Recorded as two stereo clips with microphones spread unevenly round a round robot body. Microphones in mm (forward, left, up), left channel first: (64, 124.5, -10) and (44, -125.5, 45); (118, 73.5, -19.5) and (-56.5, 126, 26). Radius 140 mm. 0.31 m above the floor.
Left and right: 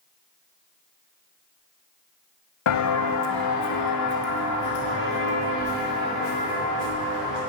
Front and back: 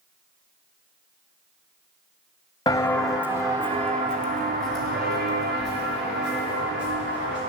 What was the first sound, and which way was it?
Footsteps, 60° left.